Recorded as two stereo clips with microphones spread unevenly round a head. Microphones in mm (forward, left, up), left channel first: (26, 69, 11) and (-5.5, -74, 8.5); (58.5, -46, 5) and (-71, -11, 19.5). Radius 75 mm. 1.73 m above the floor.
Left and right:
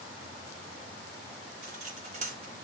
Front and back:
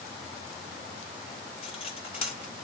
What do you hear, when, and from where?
1.6 s cutlery clinking: 65° right, 2.5 m